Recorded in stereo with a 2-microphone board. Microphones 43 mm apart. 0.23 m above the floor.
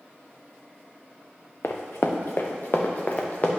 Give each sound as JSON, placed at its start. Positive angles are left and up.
{"t": 1.6, "sound": "running footsteps", "side_deg": 80, "distance_m": 1.0}